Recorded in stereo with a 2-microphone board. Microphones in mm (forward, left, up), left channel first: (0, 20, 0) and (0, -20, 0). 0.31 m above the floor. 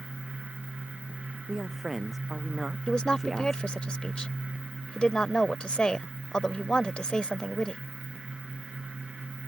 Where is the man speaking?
5° right (ahead or behind).